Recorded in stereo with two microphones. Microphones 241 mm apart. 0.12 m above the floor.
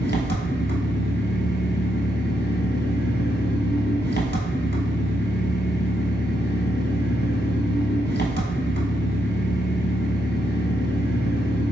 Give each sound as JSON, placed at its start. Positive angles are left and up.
{"t": 0.0, "sound": "an engine running", "side_deg": 45, "distance_m": 1.0}